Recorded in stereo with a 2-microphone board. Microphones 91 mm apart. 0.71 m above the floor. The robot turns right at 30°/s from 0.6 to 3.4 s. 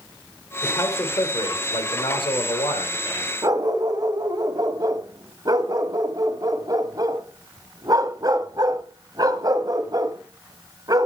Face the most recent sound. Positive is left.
turn(degrees=-45)  # may be behind; listen again after turning